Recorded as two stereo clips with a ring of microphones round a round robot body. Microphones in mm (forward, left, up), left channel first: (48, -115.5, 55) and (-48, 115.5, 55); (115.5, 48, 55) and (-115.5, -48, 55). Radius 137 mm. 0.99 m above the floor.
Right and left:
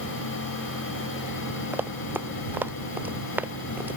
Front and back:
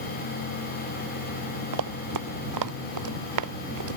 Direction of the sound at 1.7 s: 165° right.